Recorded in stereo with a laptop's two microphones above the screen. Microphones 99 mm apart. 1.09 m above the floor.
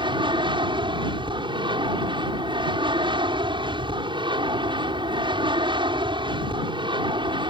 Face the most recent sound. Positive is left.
turn(degrees=-55)  # may be behind; listen again after turning